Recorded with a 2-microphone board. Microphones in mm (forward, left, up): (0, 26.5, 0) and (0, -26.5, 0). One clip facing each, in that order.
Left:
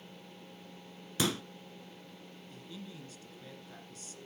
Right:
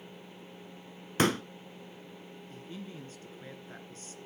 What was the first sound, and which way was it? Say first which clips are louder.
A pop: right 6 dB; 45° right (ahead or behind).